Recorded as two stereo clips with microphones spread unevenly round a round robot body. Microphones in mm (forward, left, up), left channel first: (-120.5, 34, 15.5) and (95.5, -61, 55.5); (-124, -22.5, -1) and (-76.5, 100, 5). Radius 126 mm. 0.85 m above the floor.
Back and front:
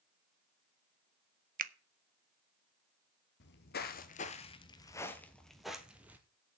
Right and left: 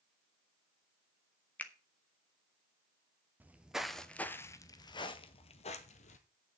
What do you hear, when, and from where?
1.6 s a finger snap: 50° right, 0.7 m
3.4 s footsteps: 130° left, 0.9 m; by 6.2 s 95° right, 1.3 m